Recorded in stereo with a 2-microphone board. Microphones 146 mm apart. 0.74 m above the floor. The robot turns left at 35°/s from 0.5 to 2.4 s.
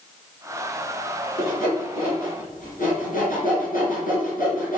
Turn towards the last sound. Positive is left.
turn(degrees=75)  # may be behind; listen again after turning